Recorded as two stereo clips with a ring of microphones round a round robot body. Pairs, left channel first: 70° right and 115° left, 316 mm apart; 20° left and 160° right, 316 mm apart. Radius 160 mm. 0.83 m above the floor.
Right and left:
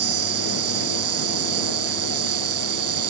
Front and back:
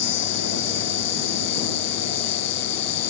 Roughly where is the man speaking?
No man speaking in this recording.